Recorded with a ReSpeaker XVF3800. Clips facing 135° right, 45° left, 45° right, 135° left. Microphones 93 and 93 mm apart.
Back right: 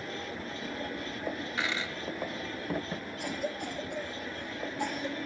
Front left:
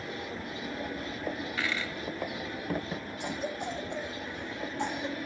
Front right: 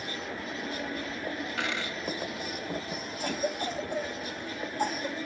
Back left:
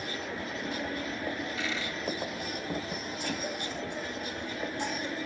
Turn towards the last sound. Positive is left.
turn(degrees=-15)